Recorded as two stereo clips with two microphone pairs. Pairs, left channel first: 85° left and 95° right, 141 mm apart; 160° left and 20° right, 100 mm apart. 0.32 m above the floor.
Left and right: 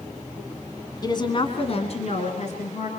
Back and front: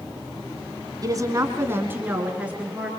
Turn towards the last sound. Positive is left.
turn(degrees=60)